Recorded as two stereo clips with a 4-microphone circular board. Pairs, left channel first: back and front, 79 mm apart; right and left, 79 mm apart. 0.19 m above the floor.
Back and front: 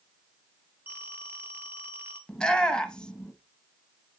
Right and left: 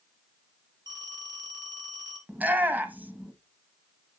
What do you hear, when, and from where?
0.9 s a phone ringing: 65° left, 2 m
2.3 s a shout: 115° left, 1.1 m